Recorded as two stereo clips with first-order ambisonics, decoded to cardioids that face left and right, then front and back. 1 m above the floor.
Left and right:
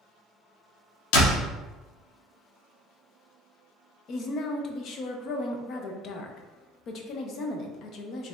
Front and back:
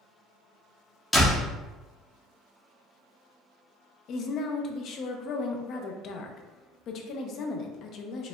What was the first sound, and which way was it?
A door slam, 85° left.